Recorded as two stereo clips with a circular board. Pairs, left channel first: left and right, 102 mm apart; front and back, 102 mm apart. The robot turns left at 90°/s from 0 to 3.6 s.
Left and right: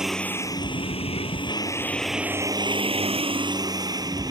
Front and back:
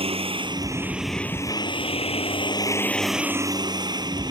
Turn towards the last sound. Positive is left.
turn(degrees=-135)